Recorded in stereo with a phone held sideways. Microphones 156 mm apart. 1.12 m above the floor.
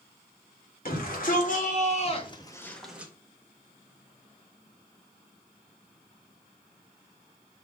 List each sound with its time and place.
0.8 s a shout: 65° left (ahead or behind), 3 m; by 3.1 s 15° right (ahead or behind), 1.4 m